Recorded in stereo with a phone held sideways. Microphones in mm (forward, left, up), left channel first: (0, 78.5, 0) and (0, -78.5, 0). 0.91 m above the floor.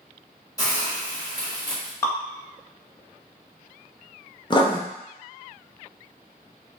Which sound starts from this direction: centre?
Dripping, at 2.0 s.